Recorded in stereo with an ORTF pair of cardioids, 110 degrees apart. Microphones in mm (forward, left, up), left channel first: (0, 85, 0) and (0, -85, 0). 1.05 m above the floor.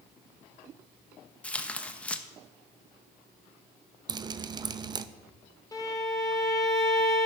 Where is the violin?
20° left, 1.2 m.